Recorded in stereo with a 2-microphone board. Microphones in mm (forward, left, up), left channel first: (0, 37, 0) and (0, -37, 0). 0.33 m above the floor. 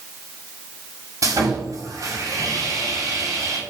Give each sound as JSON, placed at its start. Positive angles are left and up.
{"t": 1.2, "sound": "sawing", "side_deg": -50, "distance_m": 2.5}